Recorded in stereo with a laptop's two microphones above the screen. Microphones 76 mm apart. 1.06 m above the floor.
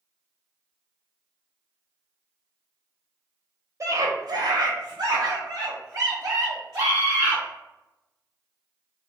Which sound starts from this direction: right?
A scream, at 3.8 s.